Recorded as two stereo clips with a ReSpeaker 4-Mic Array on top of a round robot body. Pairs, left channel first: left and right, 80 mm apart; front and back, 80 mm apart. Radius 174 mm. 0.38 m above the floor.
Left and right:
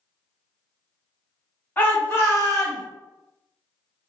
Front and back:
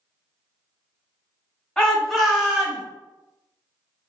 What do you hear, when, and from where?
1.8 s a shout: 70° left, 1.3 m; by 2.8 s 110° left, 1.6 m